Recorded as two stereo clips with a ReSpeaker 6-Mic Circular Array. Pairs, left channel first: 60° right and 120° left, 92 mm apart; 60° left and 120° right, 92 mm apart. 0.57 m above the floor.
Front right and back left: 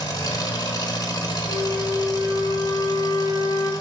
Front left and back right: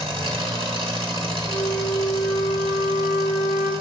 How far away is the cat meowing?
I don't hear a cat meowing.